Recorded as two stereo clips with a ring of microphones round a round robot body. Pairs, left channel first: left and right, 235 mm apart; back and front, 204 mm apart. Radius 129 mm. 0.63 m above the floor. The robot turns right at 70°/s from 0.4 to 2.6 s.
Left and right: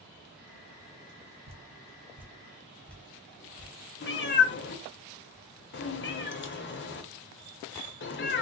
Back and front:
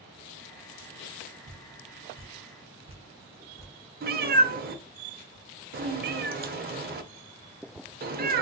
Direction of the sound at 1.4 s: 65° right.